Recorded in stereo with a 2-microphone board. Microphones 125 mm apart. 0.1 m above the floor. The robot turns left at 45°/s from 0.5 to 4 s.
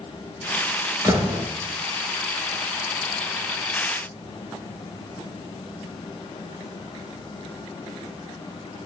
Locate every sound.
1.0 s a door slam: 25° right (ahead or behind), 1.1 m; by 1.5 s 15° right (ahead or behind), 1.1 m